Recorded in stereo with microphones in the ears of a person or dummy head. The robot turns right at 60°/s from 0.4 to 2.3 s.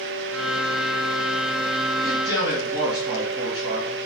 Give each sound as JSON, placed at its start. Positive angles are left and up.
{"t": 2.0, "sound": "a man speaking", "side_deg": 0, "distance_m": 1.3}